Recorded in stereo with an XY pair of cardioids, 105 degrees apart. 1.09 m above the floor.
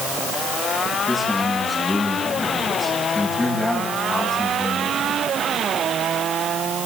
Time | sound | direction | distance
1.1 | a man speaking | 25° left | 8.5 m